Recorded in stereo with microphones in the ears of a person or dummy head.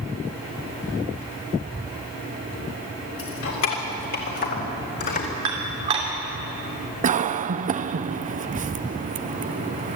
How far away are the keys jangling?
About 3.5 m.